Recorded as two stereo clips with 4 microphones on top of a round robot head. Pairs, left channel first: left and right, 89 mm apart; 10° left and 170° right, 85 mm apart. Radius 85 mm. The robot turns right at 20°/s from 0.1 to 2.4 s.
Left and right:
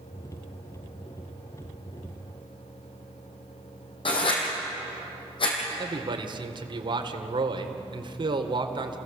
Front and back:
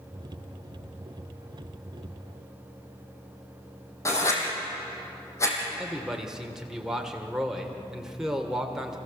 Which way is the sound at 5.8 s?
90° right.